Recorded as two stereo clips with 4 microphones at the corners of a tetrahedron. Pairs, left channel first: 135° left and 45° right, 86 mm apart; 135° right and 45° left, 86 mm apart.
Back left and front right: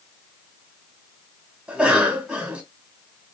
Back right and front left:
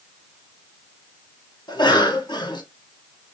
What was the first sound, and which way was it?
A cough, 120° right.